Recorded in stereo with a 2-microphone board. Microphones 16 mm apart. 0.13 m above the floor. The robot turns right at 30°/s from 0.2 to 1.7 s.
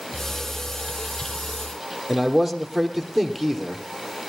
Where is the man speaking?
10° left (ahead or behind), 3.5 m.